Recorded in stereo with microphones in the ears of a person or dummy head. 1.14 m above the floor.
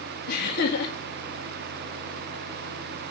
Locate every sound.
0.3 s laughter: 55° left (ahead or behind), 1.6 m